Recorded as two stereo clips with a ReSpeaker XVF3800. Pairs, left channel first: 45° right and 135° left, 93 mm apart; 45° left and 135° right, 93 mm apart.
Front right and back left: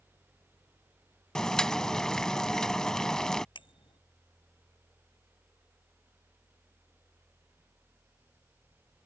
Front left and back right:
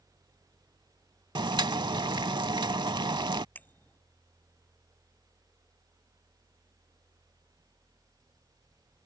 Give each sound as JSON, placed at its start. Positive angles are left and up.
{"t": 1.4, "sound": "boiling", "azimuth_deg": -125}
{"t": 3.5, "sound": "a bicycle bell", "azimuth_deg": -25}